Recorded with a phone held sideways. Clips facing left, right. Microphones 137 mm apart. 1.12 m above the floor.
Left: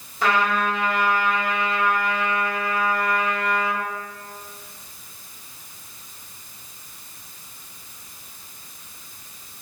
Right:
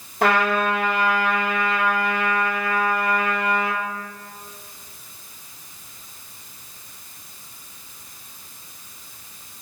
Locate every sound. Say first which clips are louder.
0.2 s a trumpet: right 2 dB; 60° right (ahead or behind), 1.2 m